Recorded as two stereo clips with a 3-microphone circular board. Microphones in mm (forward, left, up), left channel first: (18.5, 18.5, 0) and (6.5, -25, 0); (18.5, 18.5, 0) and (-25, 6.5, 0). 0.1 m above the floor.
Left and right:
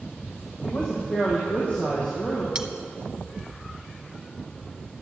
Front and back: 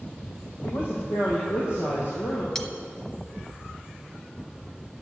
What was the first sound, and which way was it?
A woman speaking, 10° left.